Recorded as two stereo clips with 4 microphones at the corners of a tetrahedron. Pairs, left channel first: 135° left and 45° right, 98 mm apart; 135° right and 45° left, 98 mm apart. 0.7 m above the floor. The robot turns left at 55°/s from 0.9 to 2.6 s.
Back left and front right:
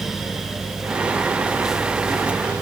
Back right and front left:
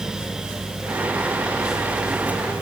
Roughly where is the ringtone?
No ringtone in this recording.